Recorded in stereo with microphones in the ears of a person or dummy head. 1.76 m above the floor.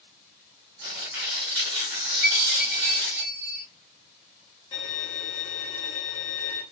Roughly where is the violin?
Left.